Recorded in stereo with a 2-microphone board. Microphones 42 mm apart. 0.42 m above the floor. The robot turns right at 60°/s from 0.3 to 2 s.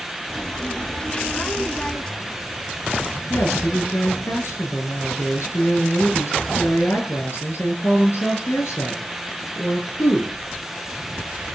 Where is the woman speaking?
85° left, 6.5 m.